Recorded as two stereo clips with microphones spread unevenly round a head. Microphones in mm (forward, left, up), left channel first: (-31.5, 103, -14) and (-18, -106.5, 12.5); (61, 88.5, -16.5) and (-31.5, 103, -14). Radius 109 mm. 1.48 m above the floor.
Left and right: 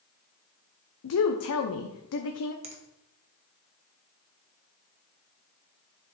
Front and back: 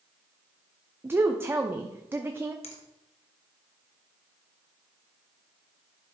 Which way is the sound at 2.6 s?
25° right.